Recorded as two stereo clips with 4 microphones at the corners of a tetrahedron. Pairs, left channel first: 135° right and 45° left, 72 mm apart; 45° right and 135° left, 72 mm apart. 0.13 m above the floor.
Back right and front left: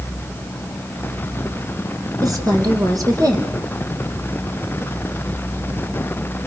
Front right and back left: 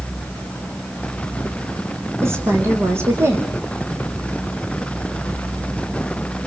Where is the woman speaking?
80° left, 6 m.